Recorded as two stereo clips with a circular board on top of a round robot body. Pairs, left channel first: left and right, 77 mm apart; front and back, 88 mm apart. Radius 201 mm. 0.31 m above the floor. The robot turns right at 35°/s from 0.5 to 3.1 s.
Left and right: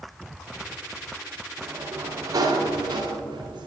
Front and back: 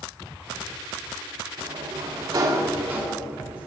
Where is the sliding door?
160° right, 1.0 m; by 3.7 s 105° right, 1.0 m.